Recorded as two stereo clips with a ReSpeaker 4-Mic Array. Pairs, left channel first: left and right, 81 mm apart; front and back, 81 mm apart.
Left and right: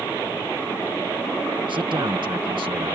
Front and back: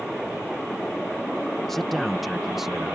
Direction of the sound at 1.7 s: 85° right.